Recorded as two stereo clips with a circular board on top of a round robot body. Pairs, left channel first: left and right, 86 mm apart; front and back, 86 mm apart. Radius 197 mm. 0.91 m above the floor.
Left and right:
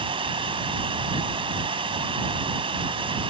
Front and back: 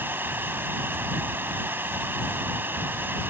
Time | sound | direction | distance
0.0 | running water | 110° right | ?